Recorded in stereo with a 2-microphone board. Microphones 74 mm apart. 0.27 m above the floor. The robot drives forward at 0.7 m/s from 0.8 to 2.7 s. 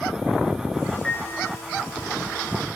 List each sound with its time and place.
1.0 s a piano: 15° left (ahead or behind), 2.5 m